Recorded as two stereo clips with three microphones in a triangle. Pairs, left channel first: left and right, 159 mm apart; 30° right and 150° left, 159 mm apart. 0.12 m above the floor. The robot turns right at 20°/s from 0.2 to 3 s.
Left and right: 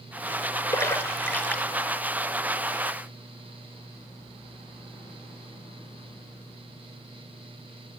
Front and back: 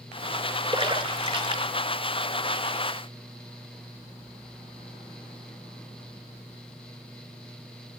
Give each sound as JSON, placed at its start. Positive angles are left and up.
{"t": 0.7, "sound": "a splash", "azimuth_deg": 145, "distance_m": 0.9}